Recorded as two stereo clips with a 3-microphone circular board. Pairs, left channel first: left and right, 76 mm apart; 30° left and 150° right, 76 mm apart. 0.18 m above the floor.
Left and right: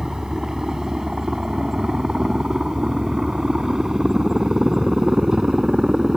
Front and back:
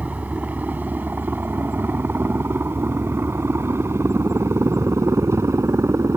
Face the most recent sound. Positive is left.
turn(degrees=-170)